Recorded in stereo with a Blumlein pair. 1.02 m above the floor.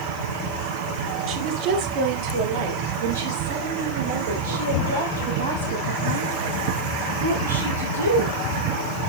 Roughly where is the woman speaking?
Ahead right.